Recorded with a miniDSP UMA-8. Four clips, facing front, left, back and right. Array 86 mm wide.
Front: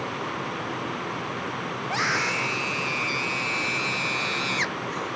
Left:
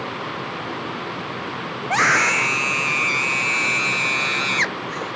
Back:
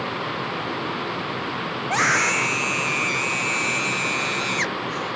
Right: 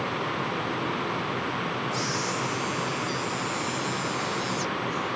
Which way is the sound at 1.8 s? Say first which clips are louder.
Left 10 dB, back 6 dB; 110° left.